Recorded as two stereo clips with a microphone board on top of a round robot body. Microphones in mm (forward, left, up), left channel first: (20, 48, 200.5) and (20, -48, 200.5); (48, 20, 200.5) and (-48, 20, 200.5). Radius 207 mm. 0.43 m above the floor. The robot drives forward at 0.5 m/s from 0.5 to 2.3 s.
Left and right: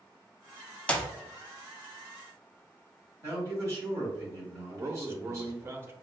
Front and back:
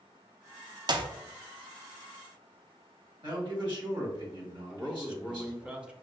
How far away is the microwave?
I don't hear a microwave.